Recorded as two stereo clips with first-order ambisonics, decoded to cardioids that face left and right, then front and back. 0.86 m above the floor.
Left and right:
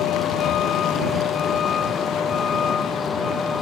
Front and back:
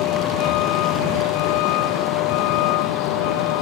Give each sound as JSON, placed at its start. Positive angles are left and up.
{"t": 0.0, "sound": "a vehicle", "azimuth_deg": 40}